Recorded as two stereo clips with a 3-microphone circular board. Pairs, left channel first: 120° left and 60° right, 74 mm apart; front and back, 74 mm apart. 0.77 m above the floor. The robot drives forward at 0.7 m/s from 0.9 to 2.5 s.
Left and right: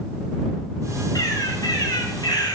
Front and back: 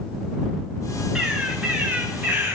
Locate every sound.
1.1 s a bird: 100° left, 2.5 m; by 2.6 s 120° left, 3 m